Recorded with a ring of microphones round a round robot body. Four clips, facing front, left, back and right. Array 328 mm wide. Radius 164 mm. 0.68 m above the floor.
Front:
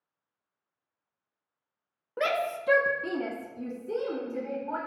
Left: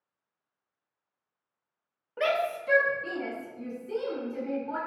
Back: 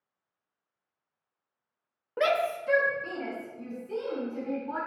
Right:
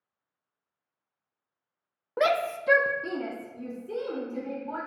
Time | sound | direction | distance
2.2 | a shout | 95° right | 0.6 m